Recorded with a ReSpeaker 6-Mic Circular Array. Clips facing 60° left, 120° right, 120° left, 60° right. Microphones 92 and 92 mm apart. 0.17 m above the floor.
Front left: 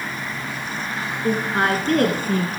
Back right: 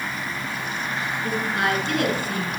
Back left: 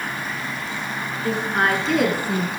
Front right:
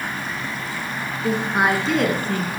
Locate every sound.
1.2 s a woman speaking: 10° left, 1.8 m; by 2.5 s 55° left, 1.6 m